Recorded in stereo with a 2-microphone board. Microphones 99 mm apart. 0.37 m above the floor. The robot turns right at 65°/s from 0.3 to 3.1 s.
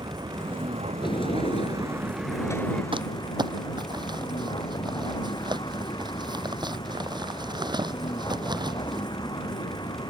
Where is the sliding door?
55° left; by 2.8 s 170° left.